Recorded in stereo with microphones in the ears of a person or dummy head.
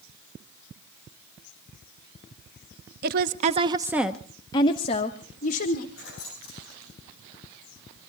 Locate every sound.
3.0 s a woman speaking: 55° right (ahead or behind), 0.9 m; by 5.9 s 50° left (ahead or behind), 1.7 m
6.0 s keys jangling: 65° left (ahead or behind), 9 m